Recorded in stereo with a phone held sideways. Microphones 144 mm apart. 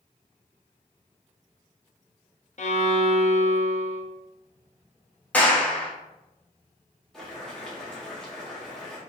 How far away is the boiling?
About 1.7 m.